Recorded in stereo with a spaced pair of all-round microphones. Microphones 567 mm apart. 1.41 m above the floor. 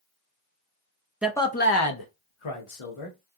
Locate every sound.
1.2 s a man speaking: centre (ahead or behind), 0.5 m; by 3.2 s 65° left (ahead or behind), 0.9 m